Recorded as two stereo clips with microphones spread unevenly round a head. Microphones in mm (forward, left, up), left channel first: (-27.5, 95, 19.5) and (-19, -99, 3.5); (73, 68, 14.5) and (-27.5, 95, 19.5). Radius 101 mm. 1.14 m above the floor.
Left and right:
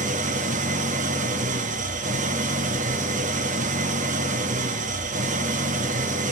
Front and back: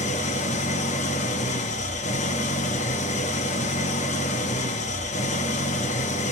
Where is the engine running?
30° right, 1.0 m.